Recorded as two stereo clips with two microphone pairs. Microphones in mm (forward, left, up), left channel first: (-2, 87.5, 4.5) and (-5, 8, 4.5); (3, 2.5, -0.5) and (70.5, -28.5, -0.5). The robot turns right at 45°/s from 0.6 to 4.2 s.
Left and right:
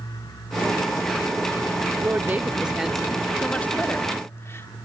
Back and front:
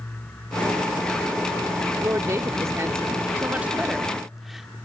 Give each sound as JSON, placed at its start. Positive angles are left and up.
{"t": 2.0, "sound": "a woman speaking", "azimuth_deg": -45, "distance_m": 0.8}